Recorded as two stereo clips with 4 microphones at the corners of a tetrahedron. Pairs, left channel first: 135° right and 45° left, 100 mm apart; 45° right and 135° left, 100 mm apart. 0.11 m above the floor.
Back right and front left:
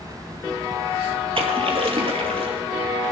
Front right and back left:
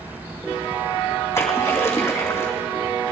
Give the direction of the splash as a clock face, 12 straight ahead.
11 o'clock.